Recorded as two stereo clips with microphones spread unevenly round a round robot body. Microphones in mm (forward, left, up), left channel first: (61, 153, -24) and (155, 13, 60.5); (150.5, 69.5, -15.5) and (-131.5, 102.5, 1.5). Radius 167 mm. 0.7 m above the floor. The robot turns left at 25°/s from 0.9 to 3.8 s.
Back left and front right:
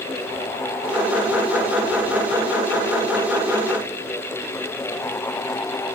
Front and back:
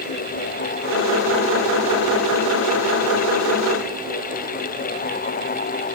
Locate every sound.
Only background noise.